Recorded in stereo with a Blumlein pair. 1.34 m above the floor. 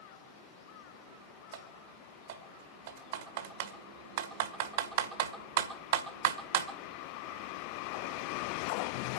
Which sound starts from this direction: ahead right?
Typing on a keyboard, at 1.5 s.